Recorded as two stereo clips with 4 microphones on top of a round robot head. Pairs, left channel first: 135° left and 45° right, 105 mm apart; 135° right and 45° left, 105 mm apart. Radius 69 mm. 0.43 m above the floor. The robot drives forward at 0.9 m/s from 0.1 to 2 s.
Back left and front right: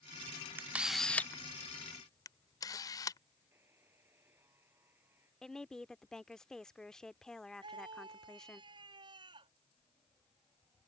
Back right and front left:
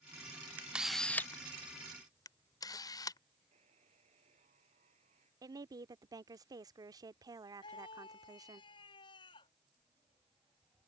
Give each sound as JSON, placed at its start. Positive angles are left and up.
{"t": 0.6, "sound": "a camera shutter", "azimuth_deg": -5}
{"t": 3.5, "sound": "a buzzer", "azimuth_deg": 25}
{"t": 5.4, "sound": "a woman speaking", "azimuth_deg": 55}
{"t": 7.6, "sound": "a scream", "azimuth_deg": -90}